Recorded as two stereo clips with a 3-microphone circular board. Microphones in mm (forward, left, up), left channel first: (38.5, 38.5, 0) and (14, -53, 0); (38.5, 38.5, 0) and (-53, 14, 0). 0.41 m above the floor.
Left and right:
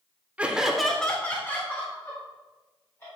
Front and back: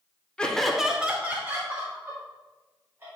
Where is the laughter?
45° right, 0.8 m; by 3.1 s 135° left, 2 m.